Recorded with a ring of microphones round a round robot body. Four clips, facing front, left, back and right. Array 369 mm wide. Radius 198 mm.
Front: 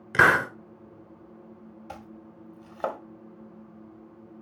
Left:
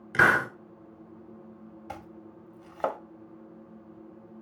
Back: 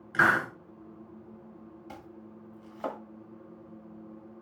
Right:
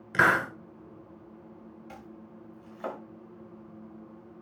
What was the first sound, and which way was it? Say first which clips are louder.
A hiss: left 1 dB, front 4 dB; straight ahead.